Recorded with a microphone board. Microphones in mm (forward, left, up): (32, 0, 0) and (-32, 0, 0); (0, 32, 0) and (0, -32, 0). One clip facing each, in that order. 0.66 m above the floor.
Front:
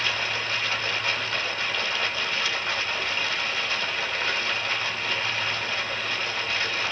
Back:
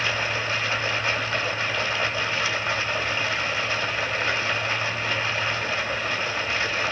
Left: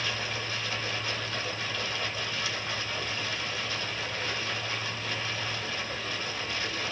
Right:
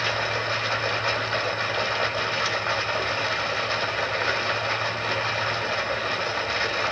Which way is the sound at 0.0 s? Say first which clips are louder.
Back 2 dB, right 8 dB; 100° right.